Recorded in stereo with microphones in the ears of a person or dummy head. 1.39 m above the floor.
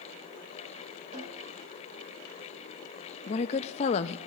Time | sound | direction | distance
1.1 | a snare drum | 35° right (ahead or behind) | 6 m
3.3 | a woman speaking | 35° left (ahead or behind) | 0.6 m